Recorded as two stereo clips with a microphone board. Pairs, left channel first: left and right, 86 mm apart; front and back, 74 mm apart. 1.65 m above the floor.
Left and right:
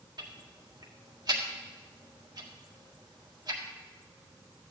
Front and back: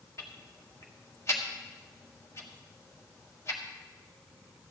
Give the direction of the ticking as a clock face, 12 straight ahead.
2 o'clock.